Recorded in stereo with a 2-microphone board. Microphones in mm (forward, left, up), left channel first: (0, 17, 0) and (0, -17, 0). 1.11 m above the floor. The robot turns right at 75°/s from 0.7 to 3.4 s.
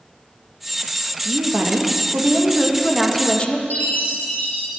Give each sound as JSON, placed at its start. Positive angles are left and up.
{"t": 1.2, "sound": "a woman speaking", "azimuth_deg": -125, "distance_m": 1.6}
{"t": 3.7, "sound": "a chime", "side_deg": 65, "distance_m": 3.0}